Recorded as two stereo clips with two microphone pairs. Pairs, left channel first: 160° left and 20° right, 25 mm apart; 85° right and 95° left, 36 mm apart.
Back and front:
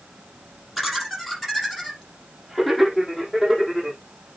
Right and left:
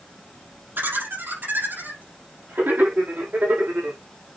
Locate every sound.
0.8 s laughter: 70° left, 4 m; by 4.0 s 65° left, 6 m